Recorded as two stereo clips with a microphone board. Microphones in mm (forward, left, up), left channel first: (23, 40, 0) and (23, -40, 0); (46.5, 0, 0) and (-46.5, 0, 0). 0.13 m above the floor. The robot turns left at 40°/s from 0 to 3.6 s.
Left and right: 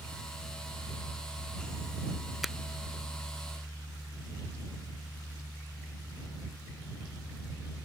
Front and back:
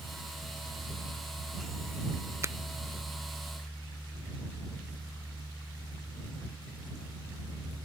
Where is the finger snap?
175° right; by 2.5 s straight behind.